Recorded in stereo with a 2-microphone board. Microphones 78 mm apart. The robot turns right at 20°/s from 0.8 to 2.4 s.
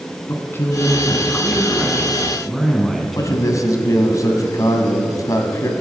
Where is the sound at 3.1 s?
45° left (ahead or behind), 1.9 m.